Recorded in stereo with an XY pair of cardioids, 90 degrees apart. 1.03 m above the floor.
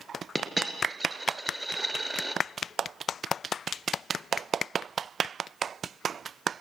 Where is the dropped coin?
10° right, 4 m.